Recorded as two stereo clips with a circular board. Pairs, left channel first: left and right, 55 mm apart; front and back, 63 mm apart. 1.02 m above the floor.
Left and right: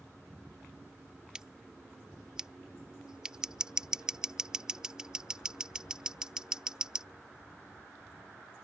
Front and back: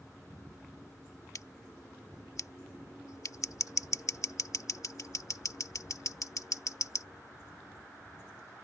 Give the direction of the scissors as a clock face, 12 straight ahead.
12 o'clock.